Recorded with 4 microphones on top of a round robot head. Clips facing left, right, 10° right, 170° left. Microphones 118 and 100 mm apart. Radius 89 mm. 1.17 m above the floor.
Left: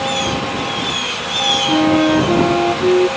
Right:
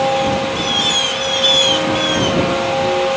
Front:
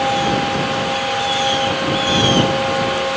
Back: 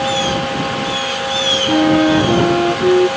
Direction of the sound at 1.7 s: 140° left.